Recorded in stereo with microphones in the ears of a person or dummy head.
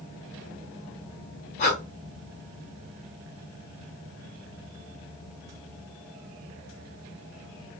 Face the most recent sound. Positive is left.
turn(degrees=35)  # may be behind; listen again after turning